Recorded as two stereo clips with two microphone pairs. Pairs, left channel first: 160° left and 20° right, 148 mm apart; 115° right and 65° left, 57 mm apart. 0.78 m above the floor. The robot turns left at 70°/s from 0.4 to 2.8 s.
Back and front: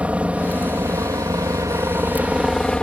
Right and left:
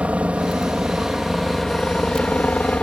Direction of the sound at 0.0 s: 50° left.